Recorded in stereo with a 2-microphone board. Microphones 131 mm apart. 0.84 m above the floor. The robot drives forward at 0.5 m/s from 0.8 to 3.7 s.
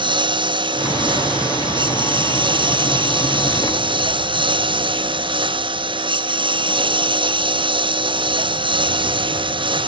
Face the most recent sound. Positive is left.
turn(degrees=-40)  # may be behind; listen again after turning